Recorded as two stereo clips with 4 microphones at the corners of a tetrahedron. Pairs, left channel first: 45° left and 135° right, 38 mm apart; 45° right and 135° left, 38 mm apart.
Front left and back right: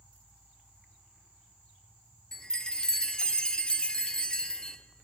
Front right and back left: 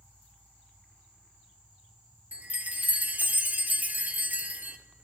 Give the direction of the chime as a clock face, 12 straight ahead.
8 o'clock.